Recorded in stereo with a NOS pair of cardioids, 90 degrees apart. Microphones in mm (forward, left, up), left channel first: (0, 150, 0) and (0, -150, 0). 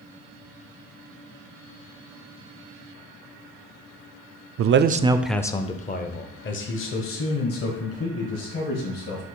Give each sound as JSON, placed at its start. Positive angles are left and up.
{"t": 4.6, "sound": "a man speaking", "azimuth_deg": -50, "distance_m": 0.5}